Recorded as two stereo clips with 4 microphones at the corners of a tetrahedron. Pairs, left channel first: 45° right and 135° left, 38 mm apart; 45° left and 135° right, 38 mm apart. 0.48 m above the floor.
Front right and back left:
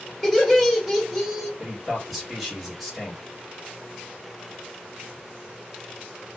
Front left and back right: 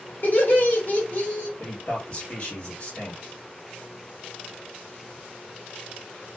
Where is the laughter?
40° left, 1.5 m.